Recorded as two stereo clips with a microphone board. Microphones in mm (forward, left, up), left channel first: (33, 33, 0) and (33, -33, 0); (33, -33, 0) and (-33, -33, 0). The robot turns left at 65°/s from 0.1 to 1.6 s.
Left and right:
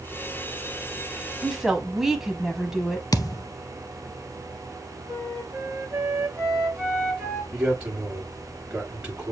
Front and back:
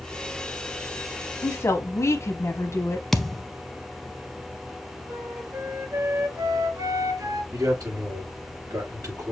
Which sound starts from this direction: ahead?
A woman speaking, at 1.4 s.